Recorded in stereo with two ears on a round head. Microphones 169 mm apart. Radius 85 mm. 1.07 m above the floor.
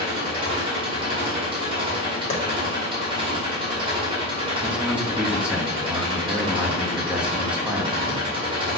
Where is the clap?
35° left (ahead or behind), 1.7 m.